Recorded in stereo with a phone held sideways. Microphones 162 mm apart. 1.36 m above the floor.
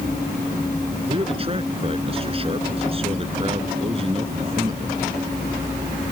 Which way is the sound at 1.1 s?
35° right (ahead or behind).